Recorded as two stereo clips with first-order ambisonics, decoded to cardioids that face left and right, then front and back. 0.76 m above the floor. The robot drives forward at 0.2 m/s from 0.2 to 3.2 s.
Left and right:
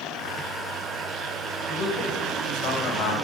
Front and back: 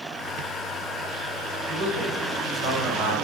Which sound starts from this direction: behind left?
A man speaking, at 1.7 s.